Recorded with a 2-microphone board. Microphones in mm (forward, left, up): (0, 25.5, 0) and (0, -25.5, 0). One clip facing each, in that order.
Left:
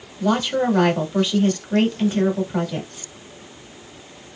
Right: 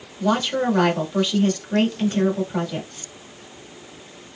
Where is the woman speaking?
10° left (ahead or behind), 1.1 m.